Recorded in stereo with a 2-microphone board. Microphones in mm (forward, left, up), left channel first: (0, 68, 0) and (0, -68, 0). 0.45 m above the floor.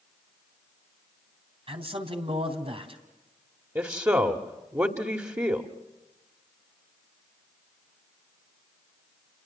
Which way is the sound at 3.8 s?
20° right (ahead or behind).